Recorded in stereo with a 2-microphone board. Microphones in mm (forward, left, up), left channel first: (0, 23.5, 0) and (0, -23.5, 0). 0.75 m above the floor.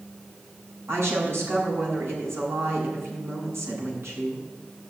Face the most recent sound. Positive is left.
turn(degrees=-85)